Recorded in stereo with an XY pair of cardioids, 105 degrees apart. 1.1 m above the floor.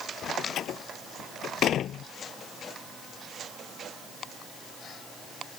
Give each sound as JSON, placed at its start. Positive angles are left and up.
{"t": 0.2, "sound": "a door slam", "azimuth_deg": 70}